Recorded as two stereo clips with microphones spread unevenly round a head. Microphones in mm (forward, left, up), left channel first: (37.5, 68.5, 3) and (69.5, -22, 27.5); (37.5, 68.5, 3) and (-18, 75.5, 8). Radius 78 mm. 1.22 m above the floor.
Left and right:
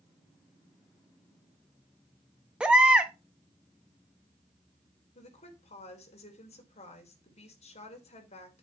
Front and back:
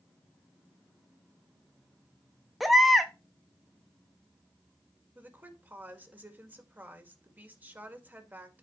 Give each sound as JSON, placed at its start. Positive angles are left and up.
{"t": 2.6, "sound": "a baby crying", "azimuth_deg": -110, "distance_m": 0.5}
{"t": 5.2, "sound": "a woman speaking", "azimuth_deg": 110, "distance_m": 2.0}